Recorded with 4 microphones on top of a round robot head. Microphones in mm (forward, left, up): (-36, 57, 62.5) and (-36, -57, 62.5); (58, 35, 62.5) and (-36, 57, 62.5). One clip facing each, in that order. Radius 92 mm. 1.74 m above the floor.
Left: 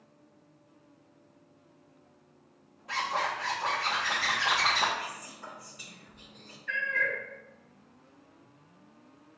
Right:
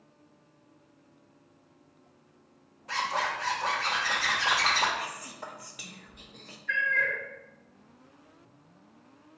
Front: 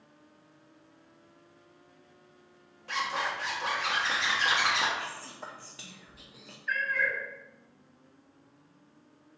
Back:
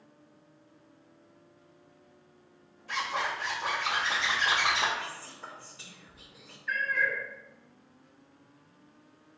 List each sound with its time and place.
2.9 s a zipper: straight ahead, 1.4 m
5.0 s whispering: 55° right, 0.8 m
6.7 s a cat meowing: 70° left, 1.9 m